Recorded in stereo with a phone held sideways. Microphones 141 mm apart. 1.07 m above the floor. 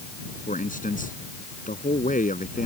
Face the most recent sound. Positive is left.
turn(degrees=70)  # may be behind; listen again after turning